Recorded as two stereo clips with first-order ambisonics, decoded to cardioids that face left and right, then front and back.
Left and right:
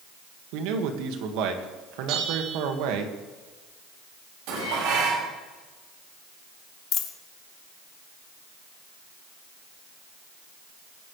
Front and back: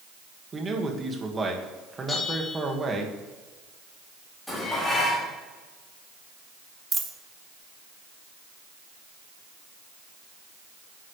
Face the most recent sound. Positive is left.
turn(degrees=110)